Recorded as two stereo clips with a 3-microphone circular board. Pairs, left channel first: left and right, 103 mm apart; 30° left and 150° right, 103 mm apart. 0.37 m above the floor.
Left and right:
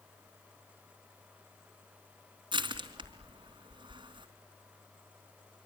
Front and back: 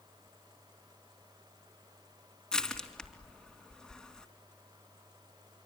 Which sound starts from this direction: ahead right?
Crushing, at 2.5 s.